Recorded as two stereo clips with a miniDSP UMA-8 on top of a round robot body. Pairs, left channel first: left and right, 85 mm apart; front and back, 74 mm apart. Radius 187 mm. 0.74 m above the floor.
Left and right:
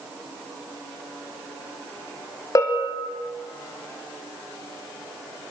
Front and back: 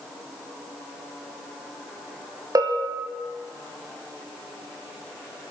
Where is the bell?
140° left, 3.5 m.